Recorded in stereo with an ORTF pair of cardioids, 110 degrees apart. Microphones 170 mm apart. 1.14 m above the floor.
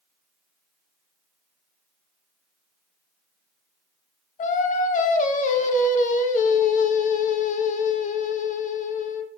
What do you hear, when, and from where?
4.4 s singing: 50° left, 0.9 m